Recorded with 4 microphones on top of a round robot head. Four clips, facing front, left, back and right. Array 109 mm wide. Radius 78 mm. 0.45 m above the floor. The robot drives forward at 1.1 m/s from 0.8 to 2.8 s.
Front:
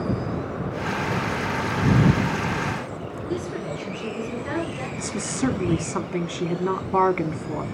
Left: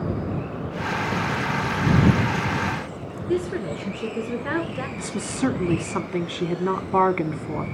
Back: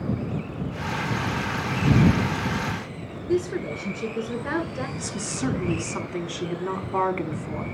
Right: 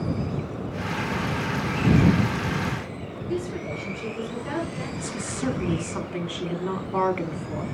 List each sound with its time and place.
3.3 s a woman speaking: 130° left, 2 m
5.0 s a woman speaking: 60° left, 1.1 m